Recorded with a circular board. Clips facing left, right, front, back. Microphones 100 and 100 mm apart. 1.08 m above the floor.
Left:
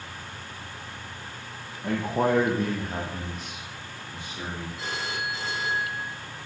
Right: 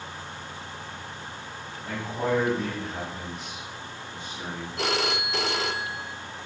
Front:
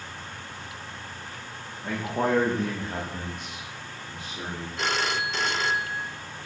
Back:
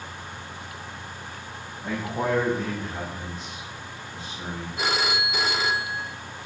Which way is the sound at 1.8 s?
90° left.